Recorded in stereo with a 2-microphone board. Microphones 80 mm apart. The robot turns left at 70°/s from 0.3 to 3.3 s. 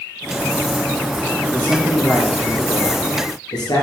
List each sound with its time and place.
1.5 s a man speaking: 150° right, 3.5 m; by 3.9 s 85° left, 3.5 m